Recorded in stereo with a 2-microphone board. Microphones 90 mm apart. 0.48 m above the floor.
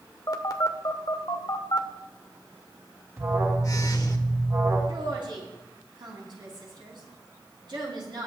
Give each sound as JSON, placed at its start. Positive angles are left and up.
{"t": 0.3, "sound": "a phone buzzing", "side_deg": 40, "distance_m": 1.0}
{"t": 3.2, "sound": "an alarm", "side_deg": -35, "distance_m": 4.5}
{"t": 4.9, "sound": "a woman speaking", "side_deg": -60, "distance_m": 4.5}